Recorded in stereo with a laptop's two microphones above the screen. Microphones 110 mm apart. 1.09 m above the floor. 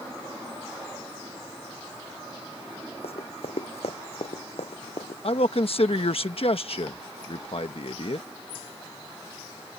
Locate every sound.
3.0 s running footsteps: 65° left (ahead or behind); by 5.1 s 70° left (ahead or behind)
5.2 s a man speaking: 60° left (ahead or behind)